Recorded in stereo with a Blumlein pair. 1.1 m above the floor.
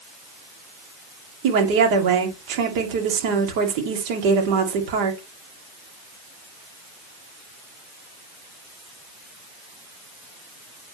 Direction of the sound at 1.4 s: 45° right.